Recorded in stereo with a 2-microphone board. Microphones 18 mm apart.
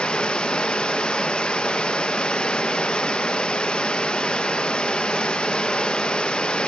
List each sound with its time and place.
0.0 s running water: 65° left (ahead or behind), 0.9 m